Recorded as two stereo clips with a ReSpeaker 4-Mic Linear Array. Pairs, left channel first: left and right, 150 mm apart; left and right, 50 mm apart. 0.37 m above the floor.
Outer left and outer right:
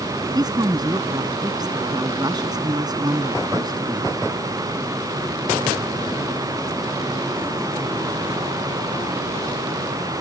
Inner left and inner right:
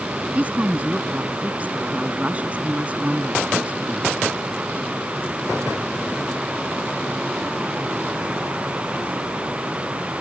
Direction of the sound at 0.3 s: 25° right (ahead or behind).